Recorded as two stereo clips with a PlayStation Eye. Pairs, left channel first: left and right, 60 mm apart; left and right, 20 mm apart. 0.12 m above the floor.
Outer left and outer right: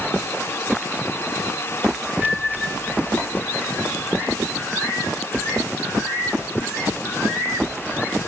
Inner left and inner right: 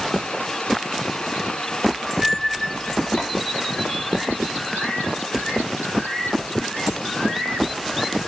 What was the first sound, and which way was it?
Chopping, 20° left (ahead or behind).